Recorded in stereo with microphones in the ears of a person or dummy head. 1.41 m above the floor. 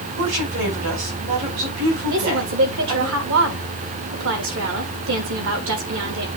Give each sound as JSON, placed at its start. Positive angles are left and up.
{"t": 0.2, "sound": "a woman speaking", "side_deg": -80, "distance_m": 5.0}
{"t": 2.1, "sound": "a woman speaking", "side_deg": -70, "distance_m": 2.5}